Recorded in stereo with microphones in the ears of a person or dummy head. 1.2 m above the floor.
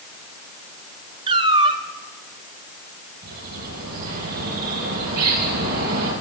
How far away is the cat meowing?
About 1.0 m.